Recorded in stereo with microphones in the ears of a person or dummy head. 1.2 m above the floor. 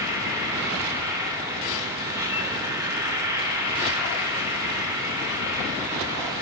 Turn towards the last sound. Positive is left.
turn(degrees=-10)  # may be behind; listen again after turning